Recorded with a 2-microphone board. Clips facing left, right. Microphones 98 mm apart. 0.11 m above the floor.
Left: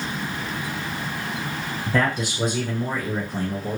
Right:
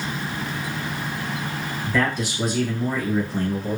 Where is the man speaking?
40° left (ahead or behind), 1.7 m; by 3.8 s 5° left (ahead or behind), 1.3 m.